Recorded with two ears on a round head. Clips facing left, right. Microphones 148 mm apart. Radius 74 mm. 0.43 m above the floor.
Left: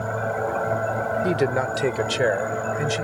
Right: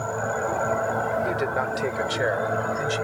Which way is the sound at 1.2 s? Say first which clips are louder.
Left 4 dB; 35° left (ahead or behind).